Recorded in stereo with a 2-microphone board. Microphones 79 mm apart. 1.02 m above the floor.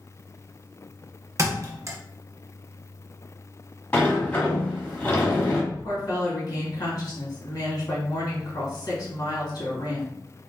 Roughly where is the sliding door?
Left.